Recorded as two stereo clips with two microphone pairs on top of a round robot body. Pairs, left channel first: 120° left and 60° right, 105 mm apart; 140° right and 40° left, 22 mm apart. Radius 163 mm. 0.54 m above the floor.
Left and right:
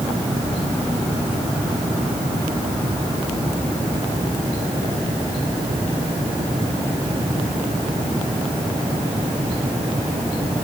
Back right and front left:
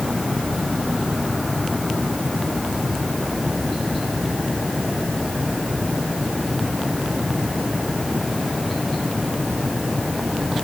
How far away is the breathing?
No breathing in this recording.